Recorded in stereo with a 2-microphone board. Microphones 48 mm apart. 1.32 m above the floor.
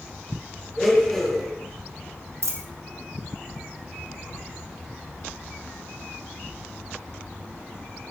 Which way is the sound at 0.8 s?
5° left (ahead or behind).